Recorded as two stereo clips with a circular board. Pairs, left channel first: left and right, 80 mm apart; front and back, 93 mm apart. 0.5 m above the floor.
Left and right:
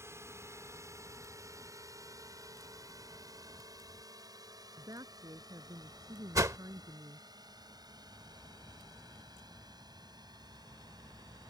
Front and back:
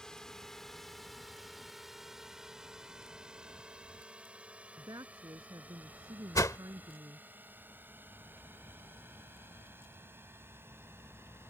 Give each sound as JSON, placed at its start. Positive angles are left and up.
{"t": 0.0, "sound": "a drone", "azimuth_deg": -80}
{"t": 4.8, "sound": "a woman speaking", "azimuth_deg": -130}
{"t": 6.3, "sound": "a whoosh", "azimuth_deg": -50}